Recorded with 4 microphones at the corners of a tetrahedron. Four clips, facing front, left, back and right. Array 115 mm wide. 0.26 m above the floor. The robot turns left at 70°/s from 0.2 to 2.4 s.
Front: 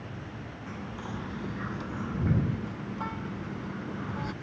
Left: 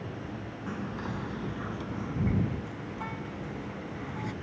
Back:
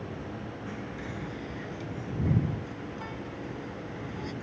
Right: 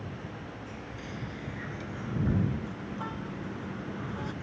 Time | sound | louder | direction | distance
0.7 | whispering | left 6 dB, front 3 dB | 95° left | ?